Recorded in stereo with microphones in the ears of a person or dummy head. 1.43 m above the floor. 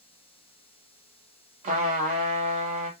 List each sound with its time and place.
1.6 s a trumpet: 35° right (ahead or behind), 1.1 m